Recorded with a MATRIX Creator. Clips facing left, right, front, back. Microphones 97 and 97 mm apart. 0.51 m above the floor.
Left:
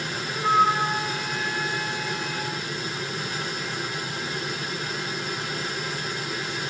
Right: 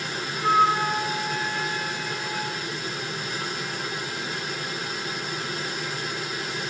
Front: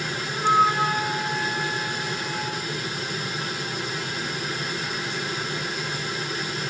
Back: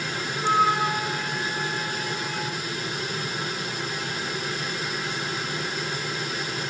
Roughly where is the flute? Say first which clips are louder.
Even, front 2 dB; ahead left.